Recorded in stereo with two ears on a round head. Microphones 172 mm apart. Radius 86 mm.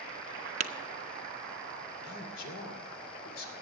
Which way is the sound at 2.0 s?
75° left (ahead or behind).